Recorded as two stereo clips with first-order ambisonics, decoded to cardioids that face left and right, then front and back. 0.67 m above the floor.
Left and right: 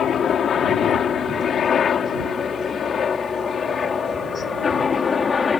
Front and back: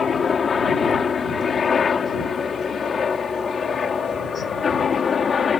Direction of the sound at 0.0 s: 55° left.